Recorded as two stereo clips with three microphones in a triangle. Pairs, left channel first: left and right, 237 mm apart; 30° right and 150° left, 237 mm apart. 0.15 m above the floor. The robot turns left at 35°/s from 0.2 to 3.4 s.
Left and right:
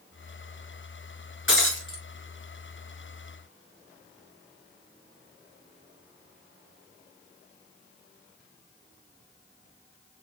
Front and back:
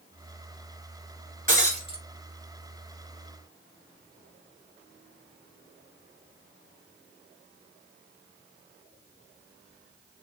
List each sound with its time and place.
1.5 s breaking glass: 105° left, 1.6 m; by 2.0 s 85° left, 1.6 m